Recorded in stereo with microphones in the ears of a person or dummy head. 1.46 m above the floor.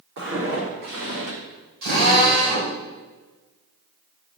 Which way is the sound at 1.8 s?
65° right (ahead or behind).